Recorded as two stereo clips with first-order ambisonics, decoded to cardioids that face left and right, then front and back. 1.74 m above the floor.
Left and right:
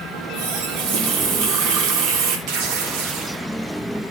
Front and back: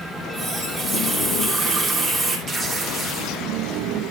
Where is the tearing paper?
95° right, 3.5 m.